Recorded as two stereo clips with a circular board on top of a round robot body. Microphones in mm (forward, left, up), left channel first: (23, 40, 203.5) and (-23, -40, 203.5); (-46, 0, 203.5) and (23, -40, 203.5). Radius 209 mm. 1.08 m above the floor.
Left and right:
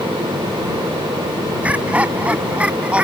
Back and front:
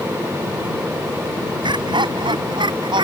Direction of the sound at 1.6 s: 45° right.